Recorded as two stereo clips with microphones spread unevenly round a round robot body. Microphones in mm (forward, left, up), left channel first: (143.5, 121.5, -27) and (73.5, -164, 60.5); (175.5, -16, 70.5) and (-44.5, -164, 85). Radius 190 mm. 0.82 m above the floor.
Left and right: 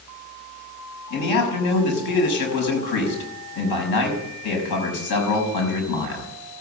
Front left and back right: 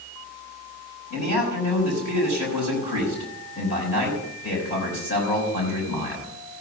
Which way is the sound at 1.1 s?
95° left.